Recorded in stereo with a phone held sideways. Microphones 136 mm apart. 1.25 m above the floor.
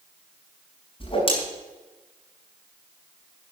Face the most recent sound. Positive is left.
turn(degrees=45)  # may be behind; listen again after turning